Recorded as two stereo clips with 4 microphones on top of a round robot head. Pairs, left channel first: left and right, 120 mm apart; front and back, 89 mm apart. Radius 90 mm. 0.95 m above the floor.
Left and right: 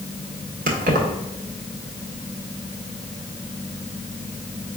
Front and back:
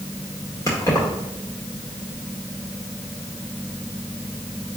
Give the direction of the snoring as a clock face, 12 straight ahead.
No snoring in this recording.